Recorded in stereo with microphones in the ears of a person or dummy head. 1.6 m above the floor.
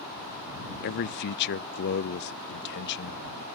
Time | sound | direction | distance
0.8 | a man speaking | 55° left (ahead or behind) | ?